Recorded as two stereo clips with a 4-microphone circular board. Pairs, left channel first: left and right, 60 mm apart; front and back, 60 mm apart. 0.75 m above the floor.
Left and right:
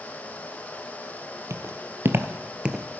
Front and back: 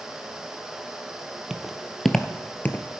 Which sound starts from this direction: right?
Footsteps, at 1.5 s.